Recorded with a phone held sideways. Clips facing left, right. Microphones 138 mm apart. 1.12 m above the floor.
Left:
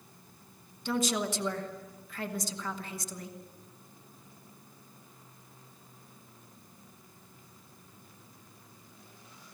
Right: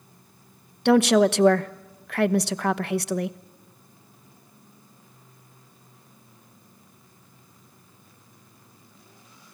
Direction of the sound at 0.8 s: 70° right (ahead or behind).